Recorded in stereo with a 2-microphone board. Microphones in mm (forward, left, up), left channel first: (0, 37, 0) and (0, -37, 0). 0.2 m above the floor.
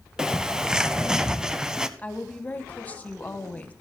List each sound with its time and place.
0.2 s a bird: 10° right (ahead or behind), 0.7 m
2.0 s a woman speaking: 20° left (ahead or behind), 1.1 m